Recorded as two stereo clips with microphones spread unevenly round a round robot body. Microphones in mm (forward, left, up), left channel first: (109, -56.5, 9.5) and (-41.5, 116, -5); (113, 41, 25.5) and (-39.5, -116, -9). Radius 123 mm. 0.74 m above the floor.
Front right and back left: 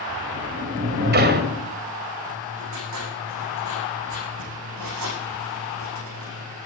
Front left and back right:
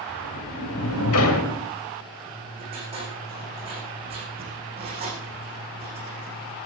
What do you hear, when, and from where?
0.1 s a sliding door: 85° left, 2 m
2.3 s writing: 155° left, 6.5 m